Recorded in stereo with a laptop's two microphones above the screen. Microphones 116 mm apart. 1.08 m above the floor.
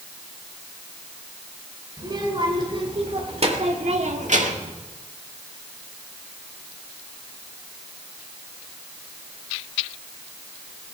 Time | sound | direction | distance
2.0 | a child speaking | 40° right (ahead or behind) | 3.5 m